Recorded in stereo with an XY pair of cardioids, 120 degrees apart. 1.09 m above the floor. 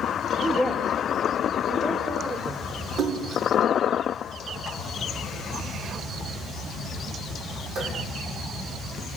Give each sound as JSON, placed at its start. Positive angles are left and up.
{"t": 0.4, "sound": "a woman speaking", "azimuth_deg": -25, "distance_m": 2.0}
{"t": 3.0, "sound": "a splash", "azimuth_deg": -60, "distance_m": 8.0}